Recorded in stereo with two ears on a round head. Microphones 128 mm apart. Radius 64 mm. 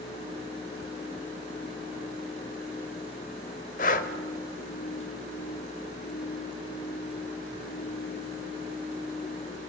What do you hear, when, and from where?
3.8 s breathing: 60° left (ahead or behind), 0.9 m